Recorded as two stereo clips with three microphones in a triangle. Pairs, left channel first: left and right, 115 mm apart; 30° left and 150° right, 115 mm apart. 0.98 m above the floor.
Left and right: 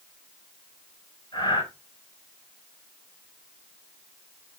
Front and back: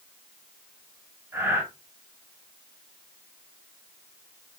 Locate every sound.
1.3 s breathing: 140° left, 5 m